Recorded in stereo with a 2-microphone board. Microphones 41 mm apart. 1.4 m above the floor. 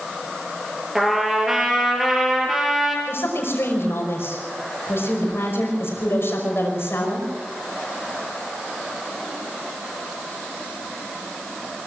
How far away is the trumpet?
About 4.5 m.